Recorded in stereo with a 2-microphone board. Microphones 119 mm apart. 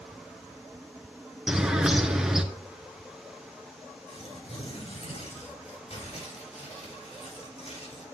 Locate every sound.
1.5 s a bird: 5° right (ahead or behind), 1.3 m
4.1 s tearing paper: 70° left (ahead or behind), 6 m